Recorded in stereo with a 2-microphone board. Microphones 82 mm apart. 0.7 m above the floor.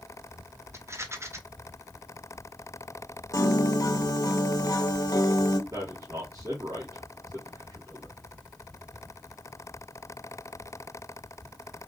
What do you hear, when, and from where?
0.7 s a rattle: 35° right (ahead or behind), 0.6 m
3.3 s a piano: 50° left (ahead or behind), 0.5 m
5.7 s a man speaking: 45° right (ahead or behind), 1.6 m